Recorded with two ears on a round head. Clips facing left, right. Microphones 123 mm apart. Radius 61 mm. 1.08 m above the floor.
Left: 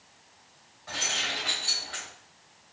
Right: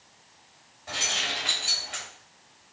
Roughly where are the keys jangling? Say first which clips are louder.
Right 1 dB; right.